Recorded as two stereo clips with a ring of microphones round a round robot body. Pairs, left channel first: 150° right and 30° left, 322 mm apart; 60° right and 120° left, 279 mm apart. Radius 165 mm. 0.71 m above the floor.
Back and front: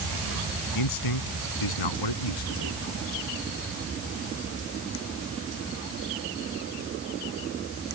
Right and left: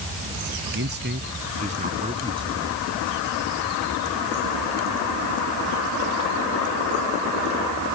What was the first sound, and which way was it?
A man speaking, straight behind.